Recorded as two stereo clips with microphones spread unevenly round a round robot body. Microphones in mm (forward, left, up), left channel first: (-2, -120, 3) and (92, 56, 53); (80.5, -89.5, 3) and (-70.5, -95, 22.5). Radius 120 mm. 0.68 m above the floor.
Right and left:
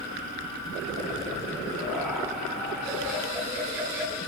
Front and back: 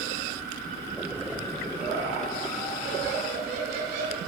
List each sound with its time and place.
1.8 s laughter: 155° left, 8.5 m; by 4.2 s 145° left, 8.5 m